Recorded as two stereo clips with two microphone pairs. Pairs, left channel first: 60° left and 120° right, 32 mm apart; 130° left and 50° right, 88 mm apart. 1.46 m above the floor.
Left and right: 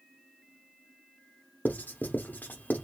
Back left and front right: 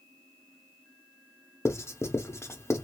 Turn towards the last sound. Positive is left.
turn(degrees=75)